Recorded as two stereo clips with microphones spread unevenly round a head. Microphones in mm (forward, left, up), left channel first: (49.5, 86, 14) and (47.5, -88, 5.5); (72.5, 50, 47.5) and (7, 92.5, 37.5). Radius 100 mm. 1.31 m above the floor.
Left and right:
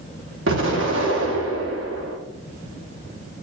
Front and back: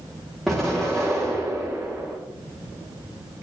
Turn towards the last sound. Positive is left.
turn(degrees=-125)